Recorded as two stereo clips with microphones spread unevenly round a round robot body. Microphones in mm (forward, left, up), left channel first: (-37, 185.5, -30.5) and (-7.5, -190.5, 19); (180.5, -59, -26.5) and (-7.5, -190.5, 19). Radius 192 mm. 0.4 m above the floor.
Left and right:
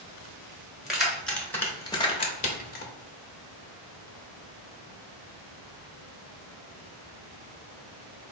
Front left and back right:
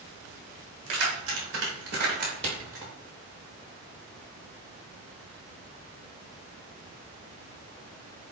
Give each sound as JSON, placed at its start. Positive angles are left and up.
{"t": 0.9, "sound": "keys jangling", "azimuth_deg": 180, "distance_m": 1.4}